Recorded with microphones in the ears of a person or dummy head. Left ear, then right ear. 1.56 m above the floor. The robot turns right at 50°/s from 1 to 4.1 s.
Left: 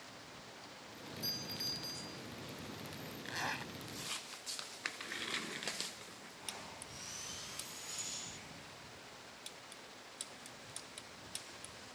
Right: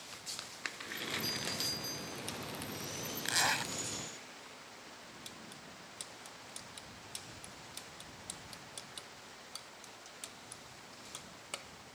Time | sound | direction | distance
1.2 | a doorbell | 165° left | ?
3.2 | a zipper | 40° right (ahead or behind) | ?